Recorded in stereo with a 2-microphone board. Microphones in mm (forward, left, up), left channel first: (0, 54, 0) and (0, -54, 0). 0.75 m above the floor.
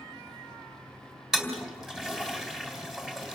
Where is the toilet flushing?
5° right (ahead or behind), 3 m.